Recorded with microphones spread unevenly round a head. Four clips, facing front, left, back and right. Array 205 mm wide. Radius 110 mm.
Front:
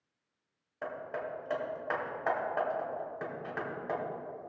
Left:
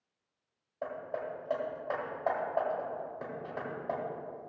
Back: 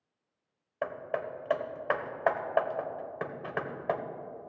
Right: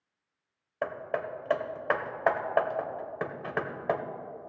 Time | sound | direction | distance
0.8 | hammering | 85° right | 1.1 m